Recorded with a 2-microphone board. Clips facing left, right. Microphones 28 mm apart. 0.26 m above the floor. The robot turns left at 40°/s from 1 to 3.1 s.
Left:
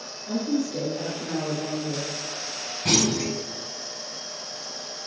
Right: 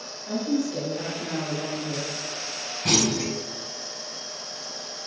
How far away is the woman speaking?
About 1.3 m.